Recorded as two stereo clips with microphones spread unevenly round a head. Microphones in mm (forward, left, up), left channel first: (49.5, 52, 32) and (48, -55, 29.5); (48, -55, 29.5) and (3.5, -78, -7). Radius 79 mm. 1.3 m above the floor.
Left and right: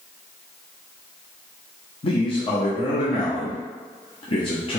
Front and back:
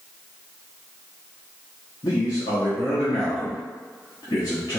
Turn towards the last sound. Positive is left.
turn(degrees=50)